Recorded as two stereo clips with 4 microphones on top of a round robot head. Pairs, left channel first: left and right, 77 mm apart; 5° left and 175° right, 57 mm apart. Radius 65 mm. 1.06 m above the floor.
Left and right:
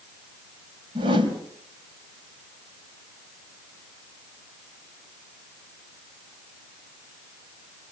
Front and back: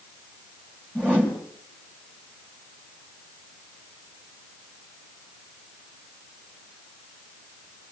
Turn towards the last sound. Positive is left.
turn(degrees=-70)